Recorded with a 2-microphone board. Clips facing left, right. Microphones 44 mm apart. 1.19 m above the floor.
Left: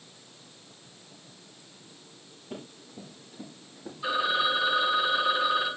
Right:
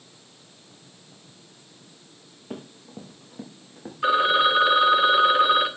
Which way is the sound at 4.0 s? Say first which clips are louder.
Right 7 dB; 55° right (ahead or behind).